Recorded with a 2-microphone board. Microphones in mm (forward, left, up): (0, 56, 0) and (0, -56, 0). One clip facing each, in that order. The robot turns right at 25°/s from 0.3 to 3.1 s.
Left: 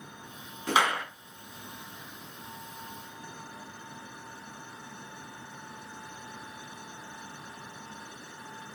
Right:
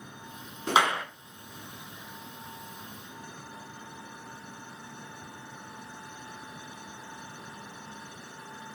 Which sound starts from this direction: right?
A clap, at 0.7 s.